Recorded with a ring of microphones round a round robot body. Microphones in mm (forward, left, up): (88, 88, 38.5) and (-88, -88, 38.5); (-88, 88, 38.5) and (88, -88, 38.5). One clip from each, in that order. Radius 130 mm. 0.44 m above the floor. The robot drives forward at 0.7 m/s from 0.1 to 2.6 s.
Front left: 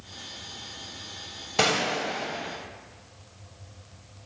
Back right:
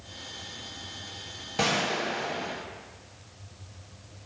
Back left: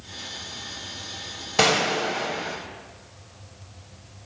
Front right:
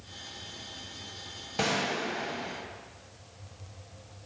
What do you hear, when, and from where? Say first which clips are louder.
1.6 s a gunshot: front left 2 dB, back left 9 dB; 90° left, 1.3 m; by 2.6 s 120° left, 1.5 m